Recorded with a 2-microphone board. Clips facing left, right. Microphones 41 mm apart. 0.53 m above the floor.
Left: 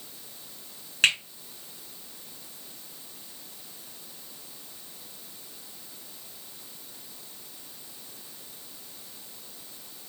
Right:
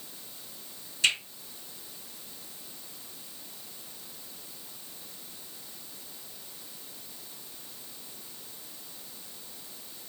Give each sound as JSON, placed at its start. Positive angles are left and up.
{"t": 1.0, "sound": "a finger snap", "side_deg": 70, "distance_m": 2.5}